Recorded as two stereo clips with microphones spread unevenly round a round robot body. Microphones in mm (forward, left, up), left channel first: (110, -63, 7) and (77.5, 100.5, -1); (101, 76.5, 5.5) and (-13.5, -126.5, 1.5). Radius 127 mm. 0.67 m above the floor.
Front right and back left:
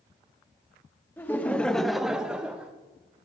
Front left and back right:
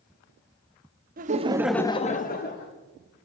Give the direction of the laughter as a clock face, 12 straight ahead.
5 o'clock.